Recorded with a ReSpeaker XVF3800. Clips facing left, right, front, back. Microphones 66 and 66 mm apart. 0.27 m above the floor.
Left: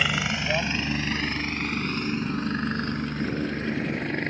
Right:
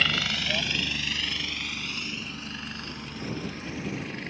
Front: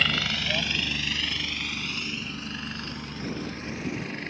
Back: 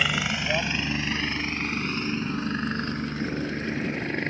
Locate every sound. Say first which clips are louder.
0.0 s a helicopter: left 2 dB, back 1 dB; 130° left